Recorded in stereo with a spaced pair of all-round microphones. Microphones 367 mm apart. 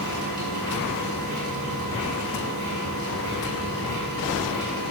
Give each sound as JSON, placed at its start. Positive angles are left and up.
{"t": 0.0, "sound": "a machine running", "side_deg": -55, "distance_m": 5.5}